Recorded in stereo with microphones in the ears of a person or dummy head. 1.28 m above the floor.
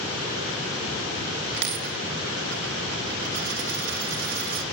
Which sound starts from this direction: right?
A dropped coin, at 1.5 s.